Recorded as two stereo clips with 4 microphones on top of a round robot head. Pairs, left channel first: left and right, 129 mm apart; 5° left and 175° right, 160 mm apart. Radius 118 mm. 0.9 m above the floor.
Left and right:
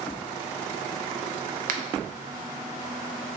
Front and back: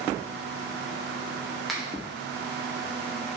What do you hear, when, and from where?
1.7 s a finger snap: 85° right, 0.6 m